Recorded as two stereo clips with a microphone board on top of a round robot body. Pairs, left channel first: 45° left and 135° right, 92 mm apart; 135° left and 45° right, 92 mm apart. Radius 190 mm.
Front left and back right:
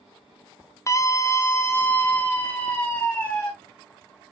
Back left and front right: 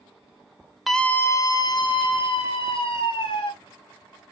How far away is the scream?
About 1.0 m.